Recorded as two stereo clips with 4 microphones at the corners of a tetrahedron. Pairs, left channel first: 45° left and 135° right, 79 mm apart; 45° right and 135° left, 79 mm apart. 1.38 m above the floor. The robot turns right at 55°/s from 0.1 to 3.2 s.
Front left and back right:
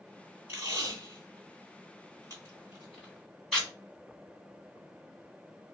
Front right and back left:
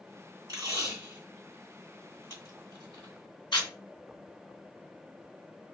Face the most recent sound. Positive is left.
turn(degrees=-45)